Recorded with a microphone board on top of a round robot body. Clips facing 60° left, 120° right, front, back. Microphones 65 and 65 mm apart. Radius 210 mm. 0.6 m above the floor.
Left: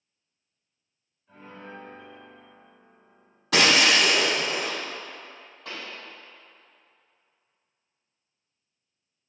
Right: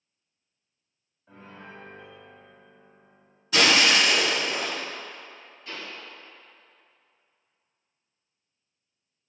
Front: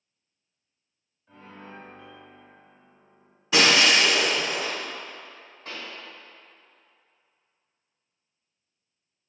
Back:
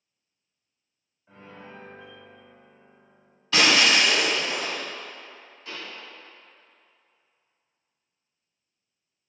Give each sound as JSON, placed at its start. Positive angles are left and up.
{"t": 1.3, "sound": "a piano", "azimuth_deg": -115, "distance_m": 0.8}
{"t": 3.5, "sound": "breaking glass", "azimuth_deg": 75, "distance_m": 1.8}
{"t": 5.7, "sound": "a pop", "azimuth_deg": 50, "distance_m": 1.6}